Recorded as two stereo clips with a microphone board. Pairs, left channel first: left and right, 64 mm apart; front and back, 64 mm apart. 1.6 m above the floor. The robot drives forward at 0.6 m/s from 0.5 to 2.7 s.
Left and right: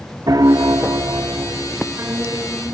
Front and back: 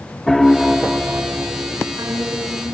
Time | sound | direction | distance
0.3 | a piano | 85° right | ?